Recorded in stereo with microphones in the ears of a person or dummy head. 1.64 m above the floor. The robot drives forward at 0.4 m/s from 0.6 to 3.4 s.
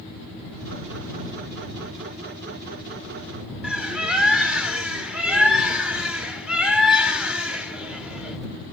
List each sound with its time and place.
3.6 s a bird: 5° right (ahead or behind), 0.7 m